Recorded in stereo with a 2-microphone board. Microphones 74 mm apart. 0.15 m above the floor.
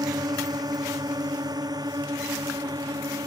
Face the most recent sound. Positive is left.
turn(degrees=-60)  # may be behind; listen again after turning